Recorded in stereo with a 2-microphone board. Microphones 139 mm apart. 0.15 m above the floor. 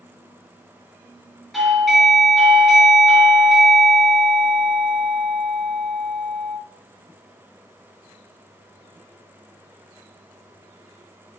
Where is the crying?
No crying in this recording.